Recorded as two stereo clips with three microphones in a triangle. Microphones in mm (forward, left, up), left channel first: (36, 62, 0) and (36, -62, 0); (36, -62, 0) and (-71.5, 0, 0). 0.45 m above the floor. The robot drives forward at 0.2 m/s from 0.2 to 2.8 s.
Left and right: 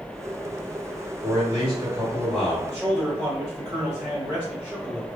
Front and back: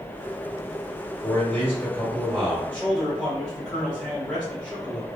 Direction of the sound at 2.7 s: 100° right.